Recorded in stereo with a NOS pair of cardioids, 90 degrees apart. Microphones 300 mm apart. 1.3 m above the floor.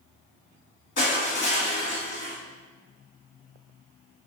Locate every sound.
1.0 s crushing: 40° left, 1.7 m